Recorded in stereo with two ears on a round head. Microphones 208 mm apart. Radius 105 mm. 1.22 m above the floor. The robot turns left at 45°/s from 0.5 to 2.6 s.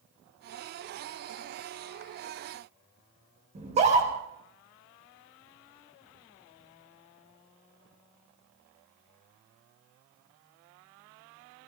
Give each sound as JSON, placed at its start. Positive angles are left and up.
{"t": 3.5, "sound": "a scream", "side_deg": -30, "distance_m": 5.0}